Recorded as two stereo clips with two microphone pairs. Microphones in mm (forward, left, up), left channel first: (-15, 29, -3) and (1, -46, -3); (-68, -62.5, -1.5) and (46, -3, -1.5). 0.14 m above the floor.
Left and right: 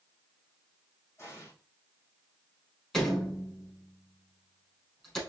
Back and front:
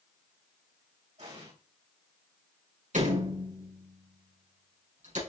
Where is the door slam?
20° left, 4 m.